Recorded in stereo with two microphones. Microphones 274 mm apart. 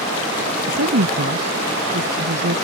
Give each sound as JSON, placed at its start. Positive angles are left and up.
{"t": 0.7, "sound": "a woman speaking", "side_deg": -60}